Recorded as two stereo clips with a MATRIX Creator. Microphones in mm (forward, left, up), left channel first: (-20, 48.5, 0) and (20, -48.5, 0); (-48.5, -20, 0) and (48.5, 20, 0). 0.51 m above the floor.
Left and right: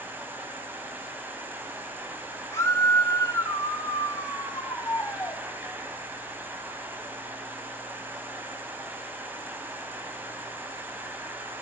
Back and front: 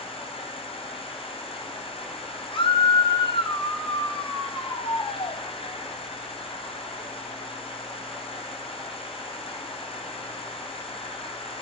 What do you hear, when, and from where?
0.0 s an insect: 135° right, 3.5 m
2.5 s a scream: 175° left, 3.5 m